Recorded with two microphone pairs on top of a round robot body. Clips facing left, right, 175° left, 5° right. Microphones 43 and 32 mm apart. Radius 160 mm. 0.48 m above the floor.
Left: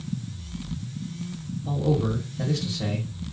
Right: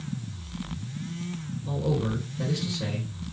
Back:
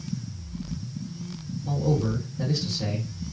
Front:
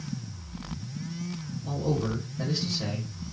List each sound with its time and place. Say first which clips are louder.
1.6 s a man speaking: left 3 dB, back 3 dB; 70° left, 1.8 m